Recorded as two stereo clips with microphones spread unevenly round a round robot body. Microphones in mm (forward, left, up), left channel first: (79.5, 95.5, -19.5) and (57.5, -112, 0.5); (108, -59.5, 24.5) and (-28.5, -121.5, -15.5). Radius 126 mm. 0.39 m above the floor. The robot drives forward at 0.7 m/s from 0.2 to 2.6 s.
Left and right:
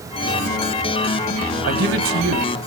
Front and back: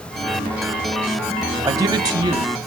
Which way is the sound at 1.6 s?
95° right.